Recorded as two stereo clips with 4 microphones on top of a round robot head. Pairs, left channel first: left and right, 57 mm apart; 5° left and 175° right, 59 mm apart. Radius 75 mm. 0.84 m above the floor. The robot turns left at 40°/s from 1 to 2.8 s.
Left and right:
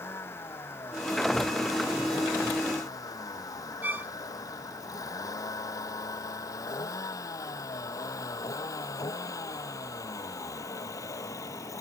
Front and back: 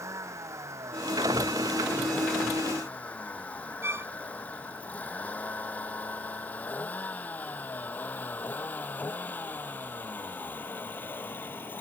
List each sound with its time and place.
0.0 s a vehicle: 145° left; by 11.8 s 60° left
3.8 s a violin: 140° right